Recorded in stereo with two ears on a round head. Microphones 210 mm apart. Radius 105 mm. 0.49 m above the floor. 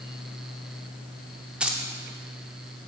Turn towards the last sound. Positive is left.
turn(degrees=-5)  # may be behind; listen again after turning